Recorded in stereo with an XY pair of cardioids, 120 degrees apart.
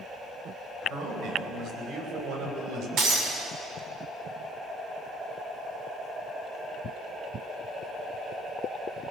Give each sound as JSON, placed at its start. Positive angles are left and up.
{"t": 0.9, "sound": "a man speaking", "azimuth_deg": -65, "distance_m": 9.0}
{"t": 3.0, "sound": "breaking glass", "azimuth_deg": -65, "distance_m": 8.0}